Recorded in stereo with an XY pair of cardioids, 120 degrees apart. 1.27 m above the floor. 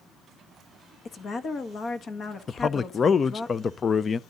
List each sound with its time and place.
1.1 s a woman speaking: 40° left, 1.5 m
2.5 s a man speaking: 30° left, 0.5 m